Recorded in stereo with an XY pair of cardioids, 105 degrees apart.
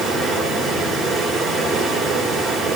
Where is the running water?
65° right, 4.5 m.